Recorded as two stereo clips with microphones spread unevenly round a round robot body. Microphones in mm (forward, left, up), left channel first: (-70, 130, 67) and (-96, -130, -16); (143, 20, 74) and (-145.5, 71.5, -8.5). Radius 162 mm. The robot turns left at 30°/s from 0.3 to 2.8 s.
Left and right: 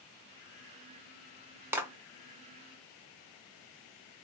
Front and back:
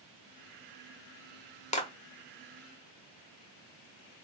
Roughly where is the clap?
Right.